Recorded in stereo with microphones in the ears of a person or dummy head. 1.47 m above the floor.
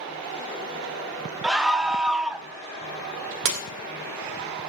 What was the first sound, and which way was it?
A scream, 5° right (ahead or behind).